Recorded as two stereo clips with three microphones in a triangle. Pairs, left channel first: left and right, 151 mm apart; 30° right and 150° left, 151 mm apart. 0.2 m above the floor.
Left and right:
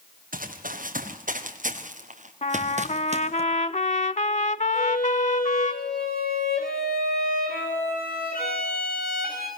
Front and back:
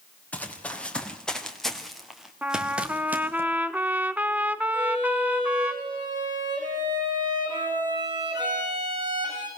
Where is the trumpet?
75° left, 0.6 m.